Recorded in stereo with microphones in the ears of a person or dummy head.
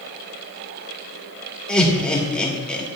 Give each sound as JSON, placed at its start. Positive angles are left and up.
{"t": 1.7, "sound": "laughter", "side_deg": 5, "distance_m": 1.8}